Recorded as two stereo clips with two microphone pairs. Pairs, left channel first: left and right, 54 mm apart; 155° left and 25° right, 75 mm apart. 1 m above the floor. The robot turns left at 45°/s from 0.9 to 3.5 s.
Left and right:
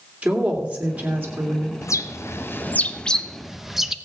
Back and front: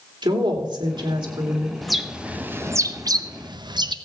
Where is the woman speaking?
20° right, 3 m; by 1.7 s 60° right, 3 m.